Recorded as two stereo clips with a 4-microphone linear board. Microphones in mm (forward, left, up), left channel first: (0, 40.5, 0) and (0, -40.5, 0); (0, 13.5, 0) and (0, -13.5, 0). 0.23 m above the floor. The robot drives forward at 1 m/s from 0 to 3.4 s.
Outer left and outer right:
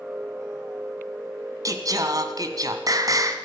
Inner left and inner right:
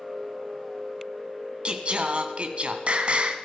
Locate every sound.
1.6 s singing: 45° right (ahead or behind), 2.5 m